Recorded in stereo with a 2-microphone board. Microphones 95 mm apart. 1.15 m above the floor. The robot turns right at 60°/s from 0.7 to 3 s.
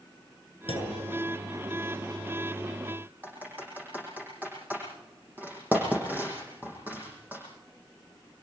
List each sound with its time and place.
0.7 s a clunk: 75° left (ahead or behind), 7 m; by 1.0 s 55° left (ahead or behind), 7 m
3.2 s typing on a keyboard: 20° right (ahead or behind), 9 m